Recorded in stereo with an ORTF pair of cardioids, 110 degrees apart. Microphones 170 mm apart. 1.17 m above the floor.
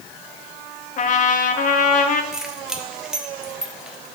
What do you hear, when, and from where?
1.0 s a trumpet: 55° left, 0.9 m
2.3 s keys jangling: 5° right, 1.1 m